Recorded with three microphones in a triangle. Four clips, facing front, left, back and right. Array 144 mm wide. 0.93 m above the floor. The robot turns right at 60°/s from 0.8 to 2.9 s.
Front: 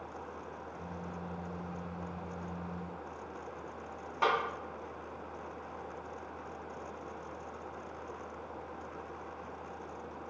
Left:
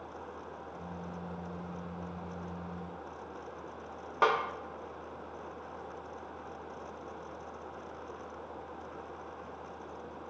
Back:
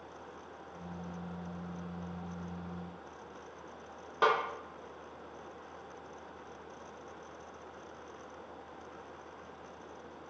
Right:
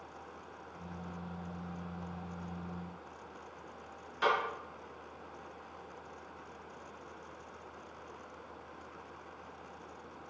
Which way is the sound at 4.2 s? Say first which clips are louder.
Left 3 dB, back 2 dB; 110° left.